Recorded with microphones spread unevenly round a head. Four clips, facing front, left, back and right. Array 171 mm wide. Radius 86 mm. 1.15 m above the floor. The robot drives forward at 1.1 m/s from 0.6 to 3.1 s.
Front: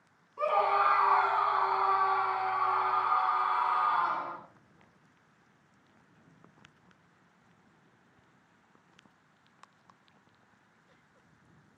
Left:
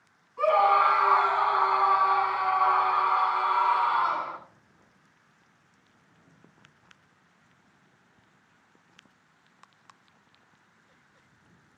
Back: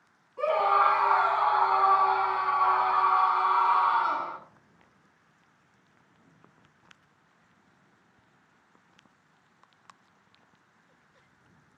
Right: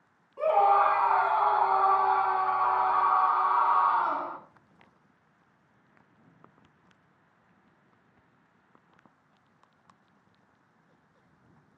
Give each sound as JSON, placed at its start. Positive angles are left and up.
{"t": 0.4, "sound": "a scream", "azimuth_deg": -90, "distance_m": 8.0}